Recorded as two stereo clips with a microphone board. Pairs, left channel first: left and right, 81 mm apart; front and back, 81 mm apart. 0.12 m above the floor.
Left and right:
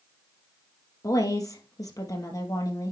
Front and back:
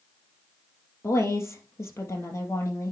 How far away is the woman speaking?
About 3 m.